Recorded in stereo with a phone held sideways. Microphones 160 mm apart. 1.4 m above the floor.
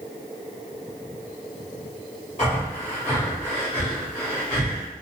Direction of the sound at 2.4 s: 45° left (ahead or behind).